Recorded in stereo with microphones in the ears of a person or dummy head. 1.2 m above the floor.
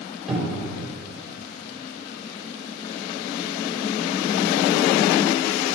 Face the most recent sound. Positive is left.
turn(degrees=0)  # may be behind; listen again after turning